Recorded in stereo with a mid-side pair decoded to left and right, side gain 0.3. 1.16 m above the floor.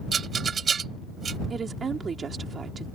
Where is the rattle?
65° right.